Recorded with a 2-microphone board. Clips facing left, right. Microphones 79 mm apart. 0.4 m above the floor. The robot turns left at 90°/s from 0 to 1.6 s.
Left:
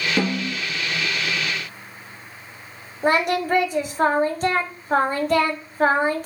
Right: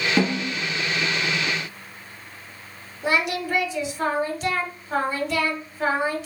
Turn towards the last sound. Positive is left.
turn(degrees=45)  # may be behind; listen again after turning